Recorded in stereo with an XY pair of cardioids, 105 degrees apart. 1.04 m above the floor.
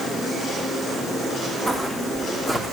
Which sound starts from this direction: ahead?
Footsteps, at 1.7 s.